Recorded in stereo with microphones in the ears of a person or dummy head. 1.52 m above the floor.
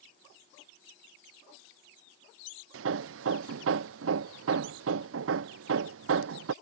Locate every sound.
2.7 s hammering: 85° right